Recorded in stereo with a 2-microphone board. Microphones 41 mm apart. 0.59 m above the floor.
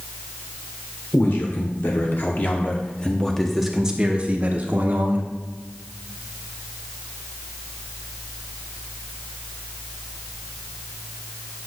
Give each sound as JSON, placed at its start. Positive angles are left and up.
{"t": 1.1, "sound": "a man speaking", "side_deg": 65, "distance_m": 1.8}